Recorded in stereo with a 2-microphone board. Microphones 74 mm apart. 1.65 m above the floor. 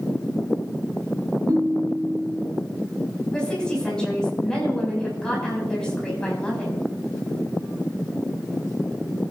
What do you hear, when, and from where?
1.5 s a ringtone: 65° right (ahead or behind), 2.5 m
3.3 s a woman speaking: 10° left (ahead or behind), 6.5 m